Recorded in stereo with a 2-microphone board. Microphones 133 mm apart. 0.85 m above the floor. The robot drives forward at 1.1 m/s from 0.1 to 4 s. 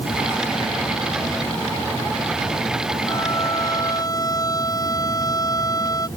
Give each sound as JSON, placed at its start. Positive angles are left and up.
{"t": 3.1, "sound": "a violin", "side_deg": 25}